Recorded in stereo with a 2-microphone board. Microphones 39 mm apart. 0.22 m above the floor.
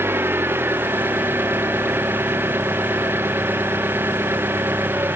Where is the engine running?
85° right.